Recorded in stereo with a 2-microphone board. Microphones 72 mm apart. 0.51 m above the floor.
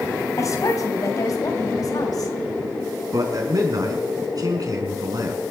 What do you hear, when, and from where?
0.4 s a woman speaking: 50° left (ahead or behind), 3.5 m; by 2.3 s 55° left (ahead or behind), 2.5 m
3.1 s a man speaking: 55° right (ahead or behind), 5 m